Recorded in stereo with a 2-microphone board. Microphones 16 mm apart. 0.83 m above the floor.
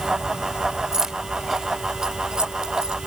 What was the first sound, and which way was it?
Keys jangling, 45° right (ahead or behind).